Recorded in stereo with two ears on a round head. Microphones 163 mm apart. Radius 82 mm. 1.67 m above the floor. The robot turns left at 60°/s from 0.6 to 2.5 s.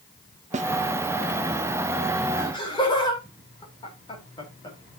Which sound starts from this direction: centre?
Laughter, at 2.4 s.